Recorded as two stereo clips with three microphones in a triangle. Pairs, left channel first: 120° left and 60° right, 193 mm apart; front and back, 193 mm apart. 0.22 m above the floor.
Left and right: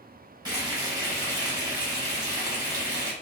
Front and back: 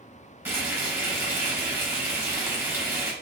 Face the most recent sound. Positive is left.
turn(degrees=-110)